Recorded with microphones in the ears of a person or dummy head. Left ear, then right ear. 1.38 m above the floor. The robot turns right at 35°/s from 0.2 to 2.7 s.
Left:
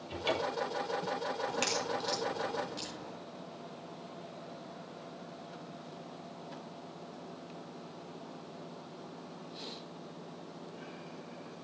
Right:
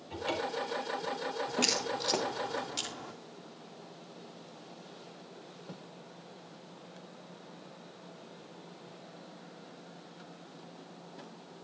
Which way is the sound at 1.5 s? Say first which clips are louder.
Right 4 dB; 10° left (ahead or behind).